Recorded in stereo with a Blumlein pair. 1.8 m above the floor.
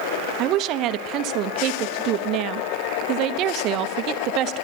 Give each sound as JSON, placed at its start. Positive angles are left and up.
{"t": 0.4, "sound": "a woman speaking", "azimuth_deg": -35, "distance_m": 0.9}